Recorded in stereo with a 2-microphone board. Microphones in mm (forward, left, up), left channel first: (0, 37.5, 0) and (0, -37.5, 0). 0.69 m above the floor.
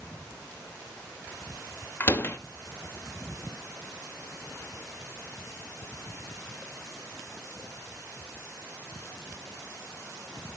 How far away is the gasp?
No gasp in this recording.